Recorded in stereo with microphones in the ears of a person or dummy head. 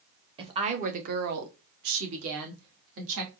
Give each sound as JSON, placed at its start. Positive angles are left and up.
{"t": 0.4, "sound": "a woman speaking", "side_deg": -25, "distance_m": 0.8}